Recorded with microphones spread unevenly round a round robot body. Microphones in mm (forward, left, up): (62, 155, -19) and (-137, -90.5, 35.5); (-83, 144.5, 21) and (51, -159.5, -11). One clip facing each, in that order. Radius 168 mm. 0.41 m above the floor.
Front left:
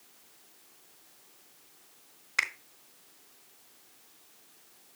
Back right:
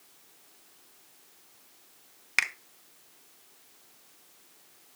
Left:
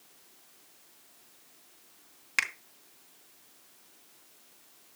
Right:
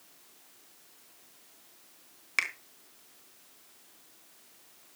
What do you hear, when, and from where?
2.4 s a finger snap: 160° right, 1.3 m